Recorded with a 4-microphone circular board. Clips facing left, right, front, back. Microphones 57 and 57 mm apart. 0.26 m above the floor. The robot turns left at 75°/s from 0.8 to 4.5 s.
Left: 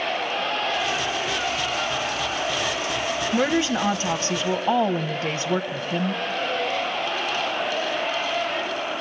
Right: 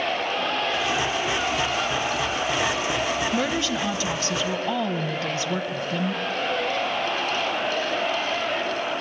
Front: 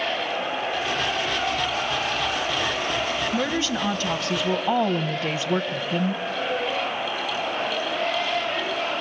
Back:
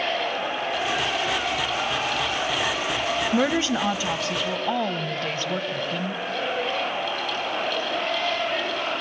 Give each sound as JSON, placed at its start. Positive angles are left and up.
{"t": 3.3, "sound": "a woman speaking", "azimuth_deg": 160, "distance_m": 1.2}